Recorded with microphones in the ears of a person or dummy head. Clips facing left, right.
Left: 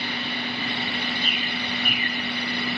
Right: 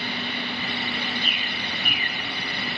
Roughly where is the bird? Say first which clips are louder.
Left 3 dB; left.